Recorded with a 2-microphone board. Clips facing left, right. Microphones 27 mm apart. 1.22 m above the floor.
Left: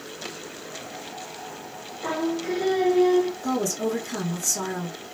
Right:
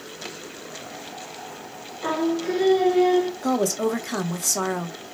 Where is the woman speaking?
75° right (ahead or behind), 0.8 m.